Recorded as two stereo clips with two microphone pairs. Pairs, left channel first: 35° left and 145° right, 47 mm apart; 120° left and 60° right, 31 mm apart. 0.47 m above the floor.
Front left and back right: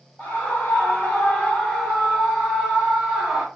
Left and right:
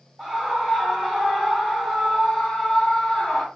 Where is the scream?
5° right, 1.7 m; by 3.5 s 140° left, 1.4 m.